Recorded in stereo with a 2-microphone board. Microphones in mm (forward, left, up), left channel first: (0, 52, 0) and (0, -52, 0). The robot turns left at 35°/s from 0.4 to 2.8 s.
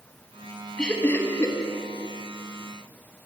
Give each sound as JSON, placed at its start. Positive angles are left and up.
{"t": 0.8, "sound": "laughter", "side_deg": 5, "distance_m": 0.9}